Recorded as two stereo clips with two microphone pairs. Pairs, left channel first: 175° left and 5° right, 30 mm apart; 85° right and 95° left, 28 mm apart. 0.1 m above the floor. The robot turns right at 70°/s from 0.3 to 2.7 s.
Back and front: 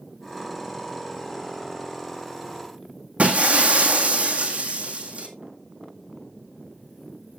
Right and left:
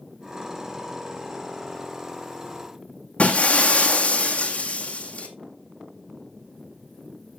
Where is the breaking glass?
45° right, 1.7 m.